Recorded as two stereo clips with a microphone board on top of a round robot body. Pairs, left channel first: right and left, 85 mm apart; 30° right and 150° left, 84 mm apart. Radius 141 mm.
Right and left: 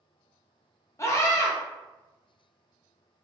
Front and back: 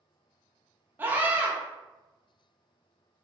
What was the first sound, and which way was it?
A scream, 145° right.